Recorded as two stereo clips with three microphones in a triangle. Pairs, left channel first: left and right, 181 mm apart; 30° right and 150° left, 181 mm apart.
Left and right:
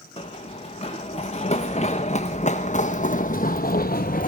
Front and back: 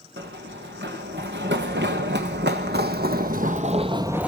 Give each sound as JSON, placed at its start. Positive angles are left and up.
{"t": 0.2, "sound": "running footsteps", "azimuth_deg": 145, "distance_m": 3.0}